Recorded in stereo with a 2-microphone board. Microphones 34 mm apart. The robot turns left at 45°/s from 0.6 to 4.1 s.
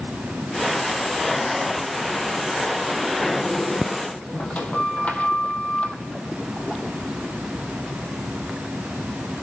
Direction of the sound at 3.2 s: 175° left.